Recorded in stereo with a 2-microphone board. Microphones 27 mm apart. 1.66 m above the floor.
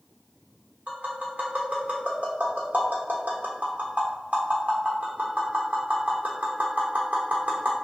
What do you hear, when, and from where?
0.9 s tapping: 65° right (ahead or behind), 0.9 m